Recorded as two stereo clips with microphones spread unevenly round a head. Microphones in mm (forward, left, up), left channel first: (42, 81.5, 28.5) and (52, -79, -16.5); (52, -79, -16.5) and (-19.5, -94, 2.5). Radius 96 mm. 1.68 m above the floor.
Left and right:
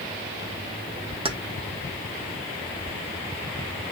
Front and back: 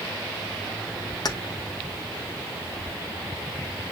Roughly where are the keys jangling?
Ahead right.